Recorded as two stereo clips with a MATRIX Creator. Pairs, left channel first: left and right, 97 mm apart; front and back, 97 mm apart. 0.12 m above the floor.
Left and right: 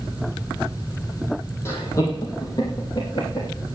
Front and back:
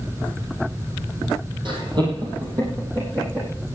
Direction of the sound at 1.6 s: 150° left.